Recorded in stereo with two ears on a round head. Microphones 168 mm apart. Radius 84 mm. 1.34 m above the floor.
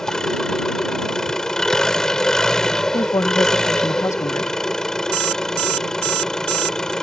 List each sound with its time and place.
0.0 s an engine running: 5° left (ahead or behind)
2.9 s a woman speaking: 15° left (ahead or behind)
5.1 s an alarm clock: 60° right (ahead or behind)